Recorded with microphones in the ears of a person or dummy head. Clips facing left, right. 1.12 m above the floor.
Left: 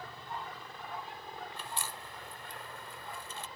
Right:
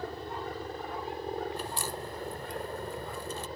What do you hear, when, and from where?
0.0 s a helicopter: 40° right (ahead or behind)
1.6 s a crack: 30° right (ahead or behind)